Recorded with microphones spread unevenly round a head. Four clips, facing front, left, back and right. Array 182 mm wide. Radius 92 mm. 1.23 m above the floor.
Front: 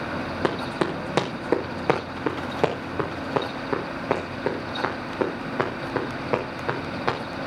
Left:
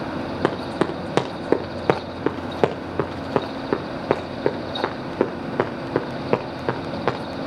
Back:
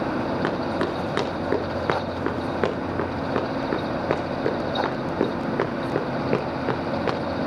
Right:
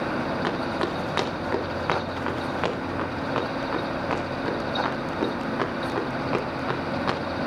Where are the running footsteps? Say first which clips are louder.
Left 4 dB, back 1 dB; 85° left, 4.5 m; by 7.2 s 115° left, 6.5 m.